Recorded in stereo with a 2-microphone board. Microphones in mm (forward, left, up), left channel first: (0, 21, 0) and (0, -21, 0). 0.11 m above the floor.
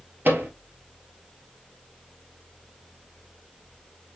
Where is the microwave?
55° right (ahead or behind), 1.7 m.